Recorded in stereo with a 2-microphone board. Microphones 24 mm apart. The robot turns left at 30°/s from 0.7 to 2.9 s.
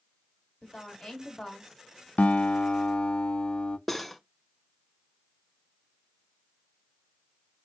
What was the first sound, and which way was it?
A woman speaking, 50° left.